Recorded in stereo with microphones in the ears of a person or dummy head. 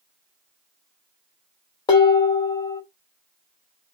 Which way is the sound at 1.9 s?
30° left (ahead or behind).